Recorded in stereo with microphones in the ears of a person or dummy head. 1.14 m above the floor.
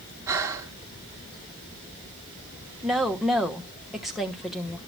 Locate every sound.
0.3 s breathing: 15° right (ahead or behind), 0.9 m
2.8 s a woman speaking: centre (ahead or behind), 1.1 m